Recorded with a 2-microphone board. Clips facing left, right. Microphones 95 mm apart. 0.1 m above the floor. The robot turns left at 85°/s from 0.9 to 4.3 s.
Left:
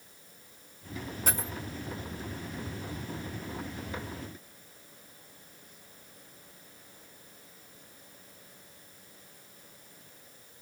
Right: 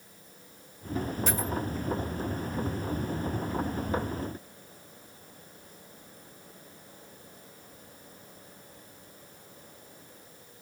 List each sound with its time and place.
1.3 s a dropped coin: 40° left (ahead or behind), 3.5 m; by 1.5 s 20° left (ahead or behind), 3.5 m